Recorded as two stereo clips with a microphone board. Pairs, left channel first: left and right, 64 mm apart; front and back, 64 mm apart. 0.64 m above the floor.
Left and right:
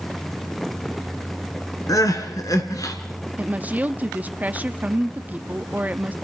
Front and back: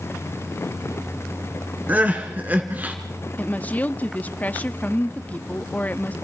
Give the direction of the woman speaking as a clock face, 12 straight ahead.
1 o'clock.